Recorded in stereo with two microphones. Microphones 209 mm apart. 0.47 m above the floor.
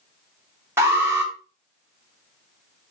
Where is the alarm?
10° right (ahead or behind), 3.5 m.